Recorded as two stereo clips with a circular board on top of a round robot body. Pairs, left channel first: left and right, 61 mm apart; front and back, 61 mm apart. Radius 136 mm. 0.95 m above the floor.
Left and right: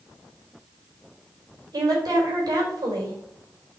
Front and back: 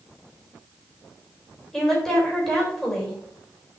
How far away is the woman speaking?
About 4 m.